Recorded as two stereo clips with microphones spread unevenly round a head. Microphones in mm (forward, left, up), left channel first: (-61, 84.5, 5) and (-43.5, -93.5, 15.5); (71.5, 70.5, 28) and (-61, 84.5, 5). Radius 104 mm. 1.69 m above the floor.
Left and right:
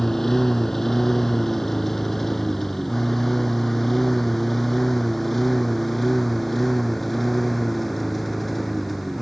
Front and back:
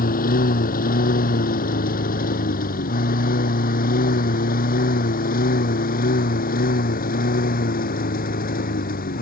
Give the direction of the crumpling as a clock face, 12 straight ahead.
No crumpling in this recording.